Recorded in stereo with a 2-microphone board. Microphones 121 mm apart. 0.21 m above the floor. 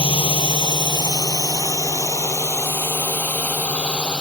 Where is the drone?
50° left (ahead or behind); by 4.2 s 5° left (ahead or behind).